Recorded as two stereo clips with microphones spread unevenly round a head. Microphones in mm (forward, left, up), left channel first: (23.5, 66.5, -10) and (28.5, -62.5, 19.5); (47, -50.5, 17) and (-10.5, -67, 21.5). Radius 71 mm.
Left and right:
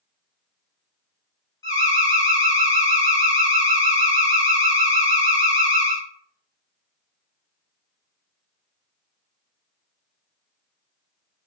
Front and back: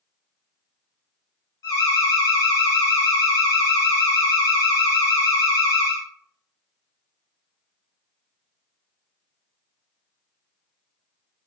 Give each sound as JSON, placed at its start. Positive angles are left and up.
{"t": 1.6, "sound": "an alarm", "azimuth_deg": 35, "distance_m": 0.9}